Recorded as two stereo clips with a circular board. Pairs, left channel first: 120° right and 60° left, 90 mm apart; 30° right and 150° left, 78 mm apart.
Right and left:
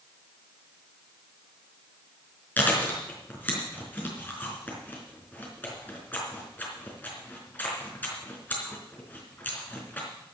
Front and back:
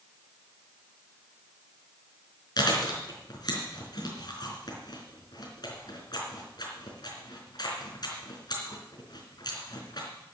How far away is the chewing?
About 4 m.